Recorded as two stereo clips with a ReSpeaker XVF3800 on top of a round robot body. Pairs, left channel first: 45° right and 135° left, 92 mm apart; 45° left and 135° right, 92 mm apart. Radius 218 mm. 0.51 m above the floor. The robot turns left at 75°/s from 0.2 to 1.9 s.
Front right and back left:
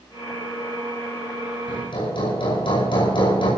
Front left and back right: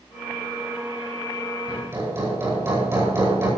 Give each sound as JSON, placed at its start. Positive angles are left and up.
{"t": 1.7, "sound": "hammering", "azimuth_deg": -55, "distance_m": 9.5}